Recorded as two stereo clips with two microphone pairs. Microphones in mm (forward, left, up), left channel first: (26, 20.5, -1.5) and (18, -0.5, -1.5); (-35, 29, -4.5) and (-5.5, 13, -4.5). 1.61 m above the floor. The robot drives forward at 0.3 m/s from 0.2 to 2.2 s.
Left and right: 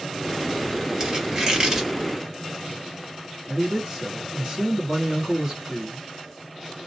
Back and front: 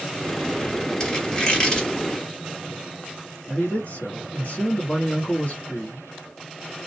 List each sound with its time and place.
1.0 s a squeak: 155° right, 1.3 m; by 1.9 s 165° right, 1.5 m
3.5 s a man speaking: 170° right, 1.1 m